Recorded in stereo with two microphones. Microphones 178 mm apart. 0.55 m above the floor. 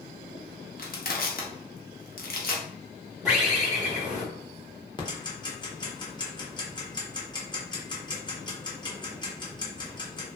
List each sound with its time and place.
0.8 s crushing: 55° left (ahead or behind), 0.6 m
3.2 s a bird: 5° right (ahead or behind), 1.3 m
5.0 s ticking: 25° left (ahead or behind), 0.6 m